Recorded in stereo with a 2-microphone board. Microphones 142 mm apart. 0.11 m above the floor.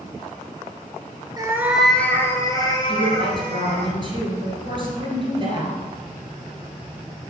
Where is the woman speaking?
35° right (ahead or behind), 2 m.